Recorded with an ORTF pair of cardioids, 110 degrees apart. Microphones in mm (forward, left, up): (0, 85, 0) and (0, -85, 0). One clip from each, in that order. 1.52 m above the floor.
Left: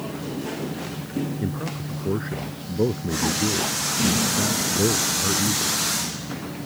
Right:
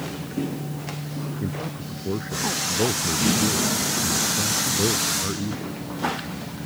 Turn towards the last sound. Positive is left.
turn(degrees=15)